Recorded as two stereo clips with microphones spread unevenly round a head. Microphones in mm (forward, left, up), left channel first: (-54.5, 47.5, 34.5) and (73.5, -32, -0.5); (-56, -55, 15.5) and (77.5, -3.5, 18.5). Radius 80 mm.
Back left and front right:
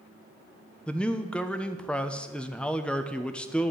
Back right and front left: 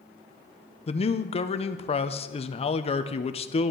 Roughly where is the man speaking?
Behind right.